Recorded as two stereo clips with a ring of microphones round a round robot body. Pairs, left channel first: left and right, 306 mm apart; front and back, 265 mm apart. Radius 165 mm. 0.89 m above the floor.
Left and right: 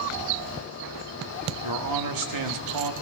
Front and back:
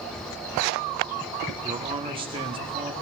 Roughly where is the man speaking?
Right.